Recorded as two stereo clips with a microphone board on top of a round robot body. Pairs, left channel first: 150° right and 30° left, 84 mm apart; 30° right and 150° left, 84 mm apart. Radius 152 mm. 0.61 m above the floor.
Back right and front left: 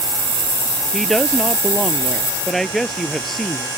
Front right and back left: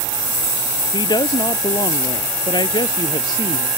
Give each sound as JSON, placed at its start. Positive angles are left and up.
{"t": 0.9, "sound": "a woman speaking", "azimuth_deg": -60}